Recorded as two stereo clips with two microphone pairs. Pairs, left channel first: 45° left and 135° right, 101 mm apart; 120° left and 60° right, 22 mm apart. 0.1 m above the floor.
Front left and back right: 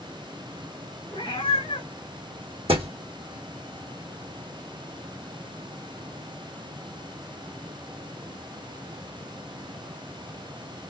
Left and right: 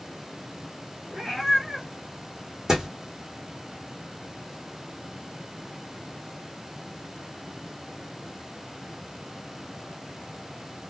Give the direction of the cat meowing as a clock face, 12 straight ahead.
11 o'clock.